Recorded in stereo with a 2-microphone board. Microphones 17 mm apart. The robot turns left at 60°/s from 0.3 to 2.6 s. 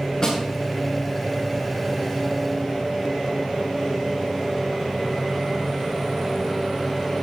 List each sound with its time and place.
0.2 s a snare drum: 30° left (ahead or behind), 8 m; by 0.4 s 35° left (ahead or behind), 8 m